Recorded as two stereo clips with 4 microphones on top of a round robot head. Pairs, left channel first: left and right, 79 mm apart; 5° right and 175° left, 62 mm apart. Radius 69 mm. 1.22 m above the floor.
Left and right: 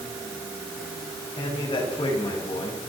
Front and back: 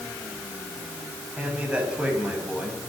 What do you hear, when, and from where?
1.4 s a man speaking: 105° left, 8.5 m